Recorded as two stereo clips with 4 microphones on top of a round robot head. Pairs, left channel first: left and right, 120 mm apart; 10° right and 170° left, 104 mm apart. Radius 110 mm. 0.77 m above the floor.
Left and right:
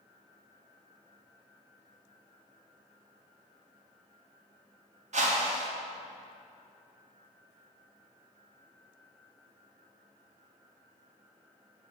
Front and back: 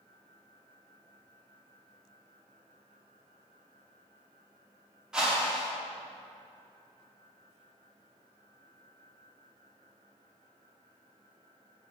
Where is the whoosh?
105° right, 1.2 m.